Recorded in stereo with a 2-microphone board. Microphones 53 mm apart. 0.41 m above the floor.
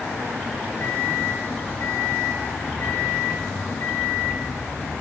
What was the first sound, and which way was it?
A microwave, 45° left (ahead or behind).